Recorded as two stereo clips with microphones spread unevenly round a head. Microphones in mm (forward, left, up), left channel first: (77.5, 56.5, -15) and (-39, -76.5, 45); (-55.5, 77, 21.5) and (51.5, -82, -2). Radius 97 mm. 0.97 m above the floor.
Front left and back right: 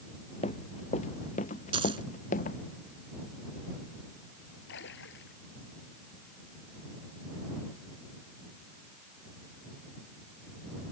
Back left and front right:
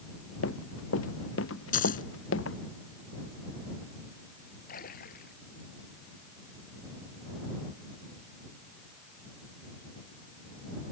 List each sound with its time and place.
0.4 s running footsteps: 110° left; by 2.6 s 100° left
1.7 s a dropped coin: 170° left
4.7 s a splash: 80° left